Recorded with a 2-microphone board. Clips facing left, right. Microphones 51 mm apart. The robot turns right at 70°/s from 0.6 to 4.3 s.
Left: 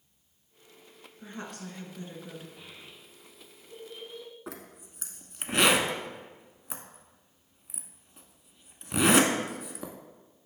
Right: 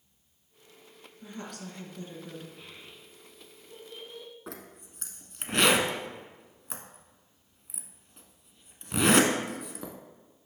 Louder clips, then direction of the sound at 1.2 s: Left 1 dB; 80° left.